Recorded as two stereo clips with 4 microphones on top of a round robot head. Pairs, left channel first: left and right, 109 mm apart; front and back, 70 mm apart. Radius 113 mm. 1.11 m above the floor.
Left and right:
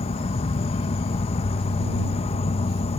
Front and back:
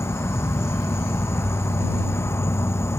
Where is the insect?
50° left.